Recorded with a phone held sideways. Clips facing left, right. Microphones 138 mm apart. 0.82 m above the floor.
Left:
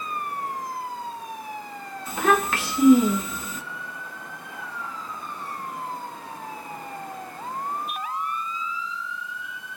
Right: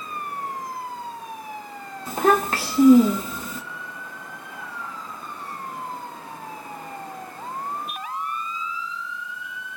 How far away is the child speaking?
About 0.6 m.